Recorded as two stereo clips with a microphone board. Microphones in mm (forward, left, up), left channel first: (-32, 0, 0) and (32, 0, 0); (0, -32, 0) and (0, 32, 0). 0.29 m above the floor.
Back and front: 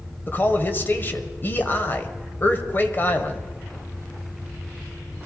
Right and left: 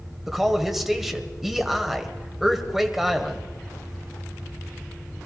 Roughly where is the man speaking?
Behind.